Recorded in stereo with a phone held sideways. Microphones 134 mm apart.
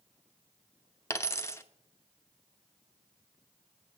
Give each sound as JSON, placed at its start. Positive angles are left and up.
{"t": 1.1, "sound": "a dropped coin", "side_deg": 20, "distance_m": 0.8}